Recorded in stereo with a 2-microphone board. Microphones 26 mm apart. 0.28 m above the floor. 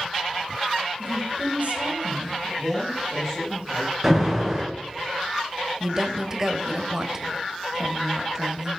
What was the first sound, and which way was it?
A woman speaking, 70° right (ahead or behind).